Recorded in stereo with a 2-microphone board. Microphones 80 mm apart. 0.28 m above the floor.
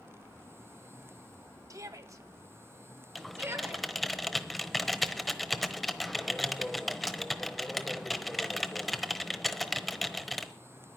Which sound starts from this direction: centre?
Typing on a keyboard, at 3.1 s.